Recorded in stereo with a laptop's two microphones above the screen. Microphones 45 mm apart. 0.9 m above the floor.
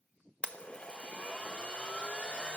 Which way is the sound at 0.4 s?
30° left (ahead or behind).